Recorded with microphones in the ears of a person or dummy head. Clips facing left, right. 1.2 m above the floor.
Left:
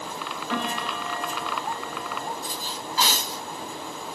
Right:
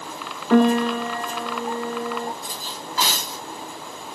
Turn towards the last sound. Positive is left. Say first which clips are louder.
# even
turn(degrees=-50)  # may be behind; listen again after turning